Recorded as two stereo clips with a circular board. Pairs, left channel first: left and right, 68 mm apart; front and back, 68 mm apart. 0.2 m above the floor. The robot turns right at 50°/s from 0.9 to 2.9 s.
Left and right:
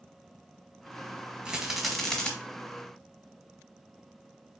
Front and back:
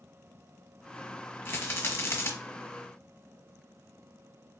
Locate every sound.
1.4 s a rattle: 20° right, 1.3 m; by 2.3 s 20° left, 1.3 m